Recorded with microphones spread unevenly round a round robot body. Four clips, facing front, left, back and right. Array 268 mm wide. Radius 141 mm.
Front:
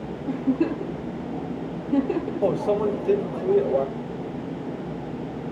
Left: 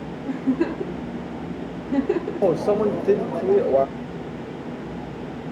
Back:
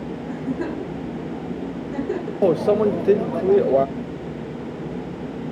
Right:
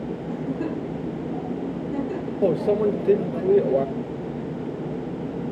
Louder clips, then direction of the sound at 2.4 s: Even, back 6 dB; 165° left.